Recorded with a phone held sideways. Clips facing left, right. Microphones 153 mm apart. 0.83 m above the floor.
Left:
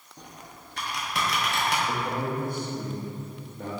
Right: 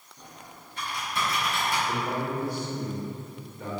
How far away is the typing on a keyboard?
About 0.7 m.